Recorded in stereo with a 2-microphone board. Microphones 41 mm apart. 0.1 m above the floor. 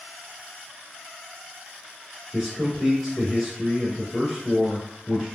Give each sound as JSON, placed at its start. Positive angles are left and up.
{"t": 2.3, "sound": "a man speaking", "side_deg": 0, "distance_m": 1.7}